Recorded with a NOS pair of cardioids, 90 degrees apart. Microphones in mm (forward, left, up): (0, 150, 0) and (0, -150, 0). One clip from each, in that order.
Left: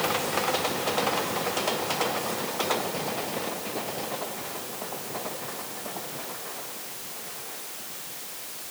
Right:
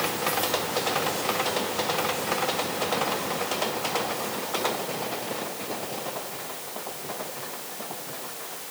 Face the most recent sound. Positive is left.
No sound to turn to.